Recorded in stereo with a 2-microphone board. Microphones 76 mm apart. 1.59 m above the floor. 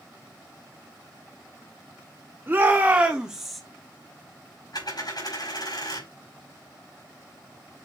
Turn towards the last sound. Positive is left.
turn(degrees=60)  # may be behind; listen again after turning